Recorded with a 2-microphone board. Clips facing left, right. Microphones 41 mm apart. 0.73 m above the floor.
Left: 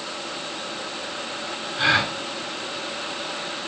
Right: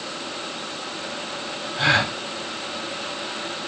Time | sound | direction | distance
1.8 | a gasp | 5° left (ahead or behind) | 7 m